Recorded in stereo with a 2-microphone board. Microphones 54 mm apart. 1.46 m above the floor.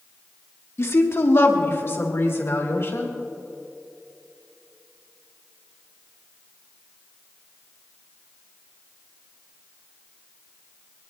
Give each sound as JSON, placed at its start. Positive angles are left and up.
{"t": 0.8, "sound": "a woman speaking", "side_deg": 50, "distance_m": 1.5}